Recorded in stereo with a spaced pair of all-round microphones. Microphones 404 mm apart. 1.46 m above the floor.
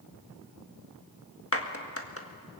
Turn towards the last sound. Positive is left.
turn(degrees=35)  # may be behind; listen again after turning